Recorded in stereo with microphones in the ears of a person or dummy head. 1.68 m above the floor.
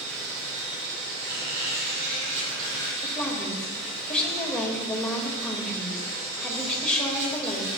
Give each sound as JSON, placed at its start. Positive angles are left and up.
{"t": 0.0, "sound": "an insect", "side_deg": -70, "distance_m": 3.0}
{"t": 1.2, "sound": "a squeak", "side_deg": -75, "distance_m": 4.0}
{"t": 3.0, "sound": "a woman speaking", "side_deg": 5, "distance_m": 2.0}